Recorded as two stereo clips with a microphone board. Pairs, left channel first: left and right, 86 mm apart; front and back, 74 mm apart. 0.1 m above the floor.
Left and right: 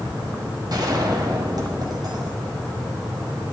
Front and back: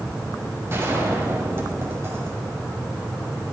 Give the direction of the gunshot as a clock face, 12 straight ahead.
4 o'clock.